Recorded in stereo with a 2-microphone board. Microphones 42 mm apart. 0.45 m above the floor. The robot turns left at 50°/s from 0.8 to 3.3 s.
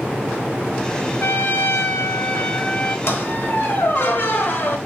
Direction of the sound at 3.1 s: 65° left (ahead or behind).